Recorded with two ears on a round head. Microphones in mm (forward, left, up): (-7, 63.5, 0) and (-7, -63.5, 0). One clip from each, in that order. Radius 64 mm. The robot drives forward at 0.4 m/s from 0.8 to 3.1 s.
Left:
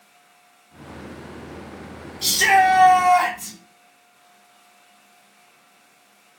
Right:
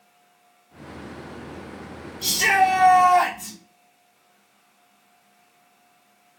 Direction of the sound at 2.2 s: 35° left (ahead or behind).